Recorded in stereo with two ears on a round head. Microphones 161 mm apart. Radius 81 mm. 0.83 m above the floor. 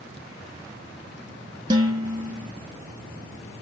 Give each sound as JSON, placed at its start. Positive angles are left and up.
{"t": 1.7, "sound": "dishes clattering", "side_deg": -25, "distance_m": 0.6}